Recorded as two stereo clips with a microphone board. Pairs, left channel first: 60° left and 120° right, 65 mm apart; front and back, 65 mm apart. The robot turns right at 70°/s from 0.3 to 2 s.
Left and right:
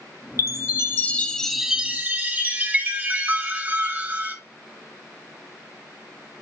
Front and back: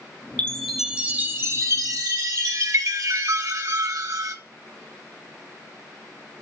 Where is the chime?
70° left, 0.5 m; by 4.3 s straight behind, 0.5 m.